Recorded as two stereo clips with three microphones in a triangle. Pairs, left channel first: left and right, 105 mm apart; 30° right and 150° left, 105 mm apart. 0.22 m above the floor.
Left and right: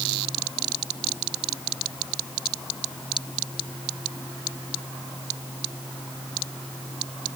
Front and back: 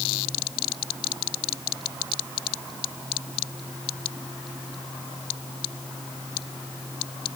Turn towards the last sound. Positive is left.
No sound to turn to.